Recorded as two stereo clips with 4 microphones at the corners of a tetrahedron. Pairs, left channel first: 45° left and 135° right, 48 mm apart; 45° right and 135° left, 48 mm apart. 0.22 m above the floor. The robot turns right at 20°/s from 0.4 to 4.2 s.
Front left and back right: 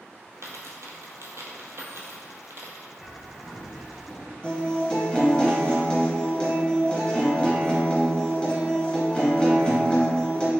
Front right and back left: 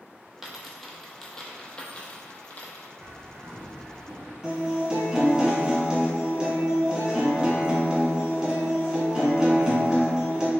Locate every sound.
0.4 s a dropped coin: 140° right, 0.8 m; by 2.9 s 95° right, 0.8 m
3.0 s a bird: 150° left, 0.6 m; by 4.3 s 175° left, 0.6 m
4.4 s a guitar: 90° left, 1.6 m